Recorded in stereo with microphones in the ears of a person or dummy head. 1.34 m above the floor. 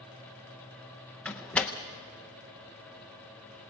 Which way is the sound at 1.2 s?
5° left (ahead or behind).